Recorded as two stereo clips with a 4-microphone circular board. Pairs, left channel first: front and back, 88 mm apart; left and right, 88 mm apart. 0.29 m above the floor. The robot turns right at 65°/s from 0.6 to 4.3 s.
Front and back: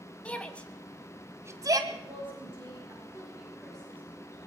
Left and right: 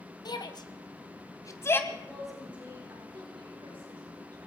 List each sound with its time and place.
0.2 s a shout: 75° left, 1.7 m; by 1.8 s 150° left, 1.7 m
1.9 s a woman speaking: 155° left, 5.5 m; by 4.5 s 50° right, 5.5 m